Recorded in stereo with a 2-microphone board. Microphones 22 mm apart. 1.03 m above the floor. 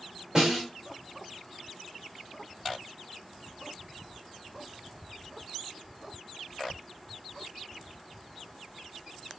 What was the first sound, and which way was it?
A snare drum, 30° right (ahead or behind).